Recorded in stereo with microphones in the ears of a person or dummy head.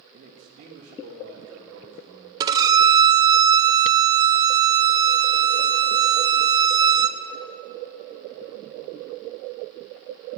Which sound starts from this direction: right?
A man speaking, at 0.1 s.